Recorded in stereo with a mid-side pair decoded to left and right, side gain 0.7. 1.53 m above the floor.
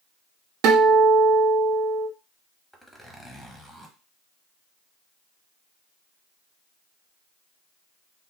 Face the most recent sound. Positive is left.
turn(degrees=0)